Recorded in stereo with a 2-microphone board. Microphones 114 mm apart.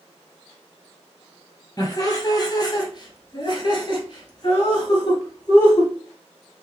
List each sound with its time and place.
1.8 s laughter: 30° left (ahead or behind), 2 m; by 5.9 s 35° left (ahead or behind), 1.8 m